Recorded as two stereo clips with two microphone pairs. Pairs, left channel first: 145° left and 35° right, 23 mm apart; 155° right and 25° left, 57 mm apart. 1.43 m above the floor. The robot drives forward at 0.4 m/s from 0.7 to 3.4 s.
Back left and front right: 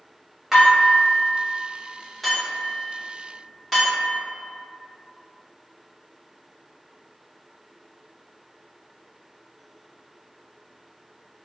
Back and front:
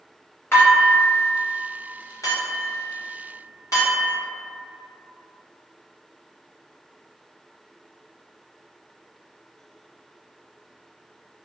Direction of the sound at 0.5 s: 105° right.